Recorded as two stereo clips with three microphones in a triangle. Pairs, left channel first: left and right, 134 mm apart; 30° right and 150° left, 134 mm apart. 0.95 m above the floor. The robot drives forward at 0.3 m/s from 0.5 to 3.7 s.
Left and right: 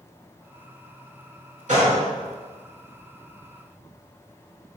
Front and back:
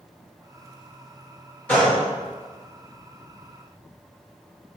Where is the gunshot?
105° right, 2.5 m.